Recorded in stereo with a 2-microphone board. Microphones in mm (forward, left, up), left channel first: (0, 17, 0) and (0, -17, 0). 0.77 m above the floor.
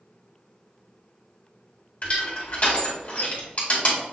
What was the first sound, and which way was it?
Crushing, 45° left (ahead or behind).